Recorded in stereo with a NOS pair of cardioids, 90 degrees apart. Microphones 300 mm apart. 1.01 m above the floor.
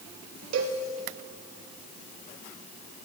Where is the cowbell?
70° right, 2.5 m.